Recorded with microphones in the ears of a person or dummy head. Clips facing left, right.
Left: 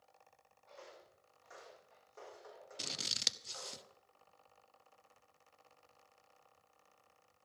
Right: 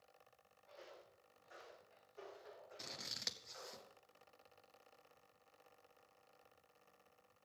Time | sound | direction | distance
0.7 | footsteps | 70° left (ahead or behind) | 7 m
2.8 | scissors | 45° left (ahead or behind) | 0.8 m